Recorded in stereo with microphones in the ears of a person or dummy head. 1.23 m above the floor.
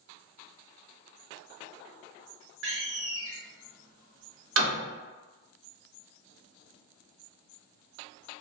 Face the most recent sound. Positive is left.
turn(degrees=-75)  # may be behind; listen again after turning